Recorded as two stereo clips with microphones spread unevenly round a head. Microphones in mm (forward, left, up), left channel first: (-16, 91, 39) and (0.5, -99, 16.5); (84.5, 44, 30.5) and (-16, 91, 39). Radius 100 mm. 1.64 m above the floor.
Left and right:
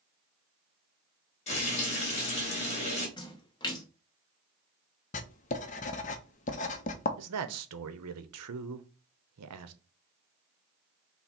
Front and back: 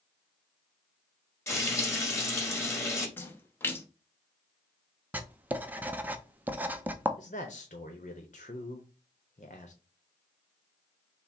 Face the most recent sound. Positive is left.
turn(degrees=-80)